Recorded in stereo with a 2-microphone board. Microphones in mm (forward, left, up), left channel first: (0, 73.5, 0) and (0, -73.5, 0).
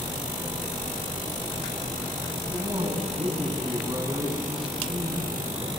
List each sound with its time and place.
2.5 s a man speaking: 35° right (ahead or behind), 9.5 m